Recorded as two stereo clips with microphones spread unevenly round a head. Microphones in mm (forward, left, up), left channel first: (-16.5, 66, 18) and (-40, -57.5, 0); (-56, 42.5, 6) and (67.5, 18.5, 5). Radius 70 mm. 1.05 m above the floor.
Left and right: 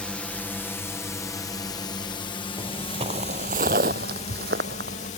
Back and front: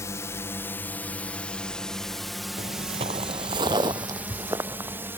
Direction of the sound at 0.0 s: 170° left.